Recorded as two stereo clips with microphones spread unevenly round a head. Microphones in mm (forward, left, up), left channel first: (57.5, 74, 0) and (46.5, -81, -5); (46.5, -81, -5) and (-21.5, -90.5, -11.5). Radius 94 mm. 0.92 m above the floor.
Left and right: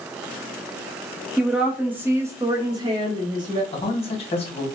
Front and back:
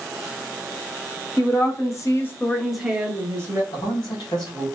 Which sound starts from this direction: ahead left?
A man speaking, at 3.7 s.